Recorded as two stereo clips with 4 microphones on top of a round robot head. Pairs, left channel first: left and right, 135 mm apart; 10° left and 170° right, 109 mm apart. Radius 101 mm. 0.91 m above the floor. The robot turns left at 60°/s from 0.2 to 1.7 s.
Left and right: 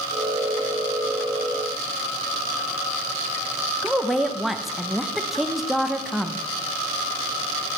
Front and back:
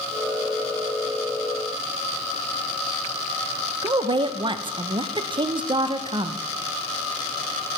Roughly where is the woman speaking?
Behind.